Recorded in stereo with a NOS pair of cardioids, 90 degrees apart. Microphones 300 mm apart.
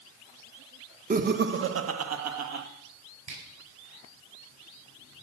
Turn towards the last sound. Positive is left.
turn(degrees=-60)